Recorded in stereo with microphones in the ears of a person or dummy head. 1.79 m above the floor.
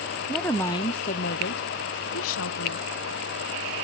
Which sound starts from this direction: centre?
A woman speaking, at 0.3 s.